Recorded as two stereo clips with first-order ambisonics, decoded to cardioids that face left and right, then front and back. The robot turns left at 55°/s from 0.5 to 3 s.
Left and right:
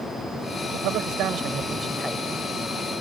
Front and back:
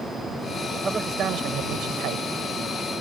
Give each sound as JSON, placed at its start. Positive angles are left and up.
{"t": 0.7, "sound": "a man speaking", "azimuth_deg": -100}